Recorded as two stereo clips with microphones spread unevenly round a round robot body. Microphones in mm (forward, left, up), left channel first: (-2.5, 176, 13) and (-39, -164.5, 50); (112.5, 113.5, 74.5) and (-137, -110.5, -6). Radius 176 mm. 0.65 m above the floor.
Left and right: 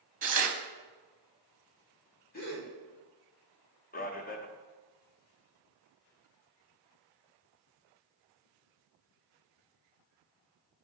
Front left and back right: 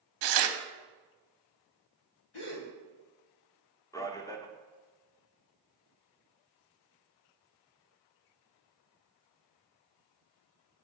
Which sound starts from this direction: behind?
Tearing paper, at 0.2 s.